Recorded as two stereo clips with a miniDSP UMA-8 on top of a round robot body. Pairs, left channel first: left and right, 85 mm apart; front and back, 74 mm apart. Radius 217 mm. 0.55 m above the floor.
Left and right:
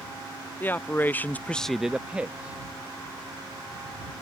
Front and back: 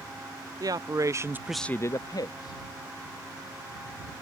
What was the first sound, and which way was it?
A man speaking, 155° left.